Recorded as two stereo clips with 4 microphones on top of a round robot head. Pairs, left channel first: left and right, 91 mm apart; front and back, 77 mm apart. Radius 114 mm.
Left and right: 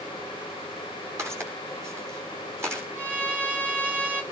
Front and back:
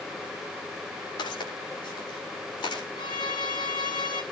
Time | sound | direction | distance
1.2 | footsteps | 30° right | 8.5 m
3.0 | a violin | 20° right | 4.5 m